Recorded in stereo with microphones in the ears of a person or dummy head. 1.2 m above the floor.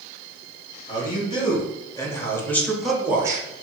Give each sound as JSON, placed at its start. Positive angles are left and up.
{"t": 0.9, "sound": "a man speaking", "side_deg": 30, "distance_m": 1.4}